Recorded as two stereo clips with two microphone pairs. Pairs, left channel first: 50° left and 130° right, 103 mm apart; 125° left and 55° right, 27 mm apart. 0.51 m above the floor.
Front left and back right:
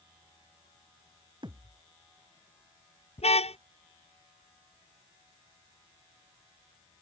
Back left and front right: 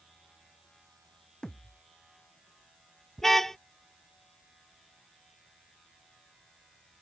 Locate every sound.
1.4 s a thud: 170° right
3.2 s a car horn: 50° left